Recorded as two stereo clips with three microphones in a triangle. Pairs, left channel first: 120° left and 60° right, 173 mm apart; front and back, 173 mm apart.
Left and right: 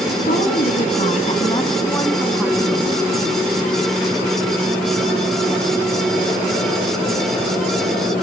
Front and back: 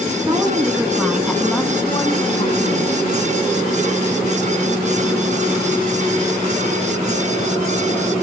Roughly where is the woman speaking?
Behind left.